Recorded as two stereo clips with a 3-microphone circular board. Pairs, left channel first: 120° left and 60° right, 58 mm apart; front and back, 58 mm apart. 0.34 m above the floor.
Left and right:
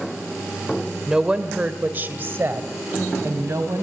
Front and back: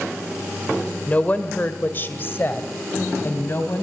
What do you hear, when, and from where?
1.1 s a woman speaking: 10° left, 1.3 m; by 3.8 s 40° right, 2.5 m